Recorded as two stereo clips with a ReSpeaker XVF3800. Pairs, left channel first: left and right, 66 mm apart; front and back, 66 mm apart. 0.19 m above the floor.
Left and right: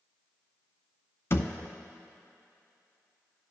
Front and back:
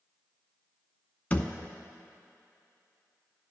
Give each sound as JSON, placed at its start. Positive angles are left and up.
{"t": 1.3, "sound": "a thud", "azimuth_deg": 60, "distance_m": 0.6}